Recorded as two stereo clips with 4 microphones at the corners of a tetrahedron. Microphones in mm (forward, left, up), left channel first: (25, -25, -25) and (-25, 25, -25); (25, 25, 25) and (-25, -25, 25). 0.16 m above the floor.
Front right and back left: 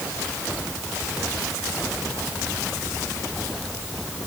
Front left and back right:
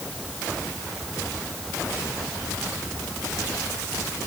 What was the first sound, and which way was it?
Only background noise.